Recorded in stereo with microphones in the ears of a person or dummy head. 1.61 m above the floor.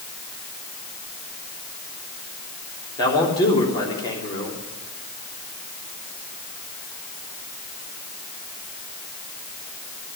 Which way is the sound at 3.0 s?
15° left (ahead or behind).